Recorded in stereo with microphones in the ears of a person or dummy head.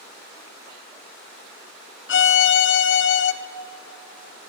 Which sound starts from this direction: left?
A violin, at 2.1 s.